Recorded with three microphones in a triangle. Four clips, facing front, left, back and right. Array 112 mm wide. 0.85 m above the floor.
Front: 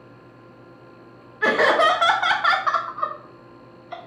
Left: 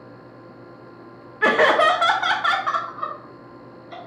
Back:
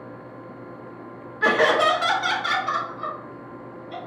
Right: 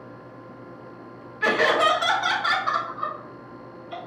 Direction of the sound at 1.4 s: 95° left.